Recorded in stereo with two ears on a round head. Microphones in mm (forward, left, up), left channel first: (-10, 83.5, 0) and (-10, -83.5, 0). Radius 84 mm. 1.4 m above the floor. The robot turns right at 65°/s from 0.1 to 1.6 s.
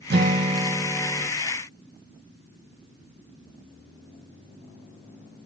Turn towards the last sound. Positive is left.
turn(degrees=40)